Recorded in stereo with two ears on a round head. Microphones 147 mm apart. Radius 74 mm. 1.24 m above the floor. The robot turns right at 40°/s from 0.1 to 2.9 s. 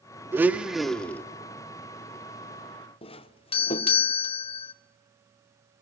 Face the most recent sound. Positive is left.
turn(degrees=35)  # may be behind; listen again after turning